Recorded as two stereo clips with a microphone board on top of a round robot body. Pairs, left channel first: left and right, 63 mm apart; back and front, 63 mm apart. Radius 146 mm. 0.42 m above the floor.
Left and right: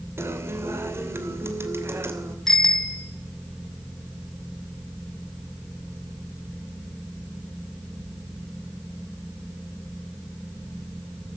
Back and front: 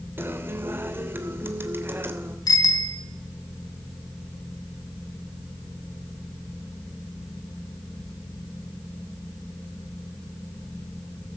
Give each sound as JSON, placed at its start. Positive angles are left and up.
{"t": 0.2, "sound": "a guitar", "azimuth_deg": -50, "distance_m": 2.5}
{"t": 2.5, "sound": "a bicycle bell", "azimuth_deg": 170, "distance_m": 3.0}